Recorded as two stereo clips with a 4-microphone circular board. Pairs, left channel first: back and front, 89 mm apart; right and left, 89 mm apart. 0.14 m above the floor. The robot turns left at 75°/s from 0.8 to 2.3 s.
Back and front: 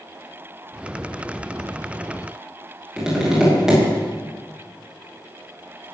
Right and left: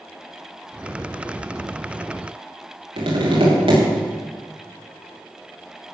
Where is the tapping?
85° left, 6.5 m.